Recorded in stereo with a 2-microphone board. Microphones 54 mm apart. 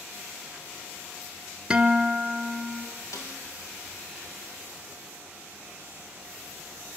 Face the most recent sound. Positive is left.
turn(degrees=70)  # may be behind; listen again after turning